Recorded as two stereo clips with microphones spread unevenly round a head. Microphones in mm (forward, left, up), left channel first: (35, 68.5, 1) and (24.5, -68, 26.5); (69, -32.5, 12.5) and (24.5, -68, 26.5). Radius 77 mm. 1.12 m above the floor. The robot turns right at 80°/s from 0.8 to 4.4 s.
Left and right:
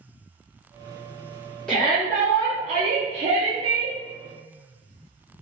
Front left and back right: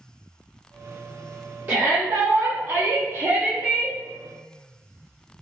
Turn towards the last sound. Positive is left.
turn(degrees=10)